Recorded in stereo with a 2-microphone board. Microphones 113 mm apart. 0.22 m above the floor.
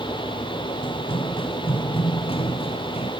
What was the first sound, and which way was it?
Running footsteps, 50° left (ahead or behind).